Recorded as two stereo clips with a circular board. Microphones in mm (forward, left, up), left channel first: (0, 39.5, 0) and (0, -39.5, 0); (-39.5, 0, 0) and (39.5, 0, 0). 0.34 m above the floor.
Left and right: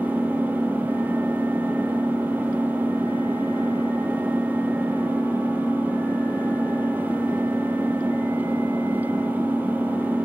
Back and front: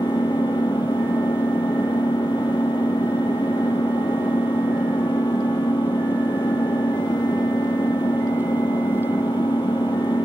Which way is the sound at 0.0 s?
155° right.